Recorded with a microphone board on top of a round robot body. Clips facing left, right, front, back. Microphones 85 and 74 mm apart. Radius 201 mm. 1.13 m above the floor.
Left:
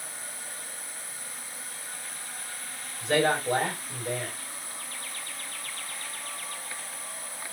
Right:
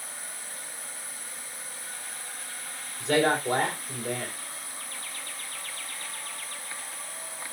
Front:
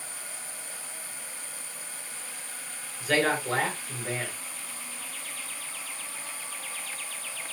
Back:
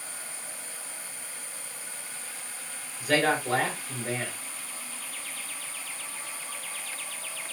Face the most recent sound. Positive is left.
turn(degrees=-100)